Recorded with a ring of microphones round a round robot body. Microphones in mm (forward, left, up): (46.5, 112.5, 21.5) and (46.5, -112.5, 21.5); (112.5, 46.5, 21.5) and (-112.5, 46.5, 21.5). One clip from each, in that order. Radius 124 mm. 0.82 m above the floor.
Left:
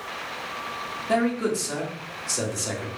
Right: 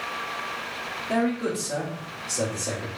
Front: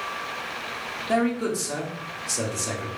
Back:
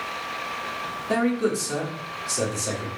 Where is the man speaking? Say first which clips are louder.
Left 3 dB, back 1 dB; 75° left, 2.5 m.